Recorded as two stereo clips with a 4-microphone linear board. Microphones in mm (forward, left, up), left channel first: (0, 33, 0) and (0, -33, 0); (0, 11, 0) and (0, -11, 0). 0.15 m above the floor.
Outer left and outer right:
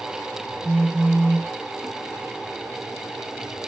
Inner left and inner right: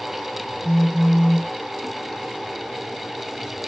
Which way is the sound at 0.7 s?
30° right (ahead or behind).